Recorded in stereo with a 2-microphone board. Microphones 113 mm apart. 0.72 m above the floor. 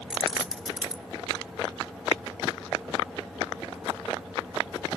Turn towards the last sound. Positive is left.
turn(degrees=-5)  # may be behind; listen again after turning